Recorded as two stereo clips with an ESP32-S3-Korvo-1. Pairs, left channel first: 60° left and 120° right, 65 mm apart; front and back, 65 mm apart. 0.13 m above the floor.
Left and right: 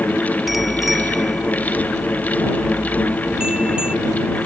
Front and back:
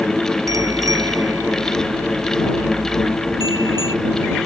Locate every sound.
0.5 s a bicycle bell: 155° left; by 4.0 s 165° left